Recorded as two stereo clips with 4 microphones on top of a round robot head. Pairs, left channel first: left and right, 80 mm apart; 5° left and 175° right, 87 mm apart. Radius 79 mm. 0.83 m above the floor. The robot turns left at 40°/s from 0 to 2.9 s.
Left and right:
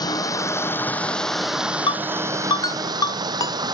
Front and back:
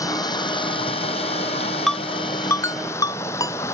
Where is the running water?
55° left; by 3.7 s 60° right.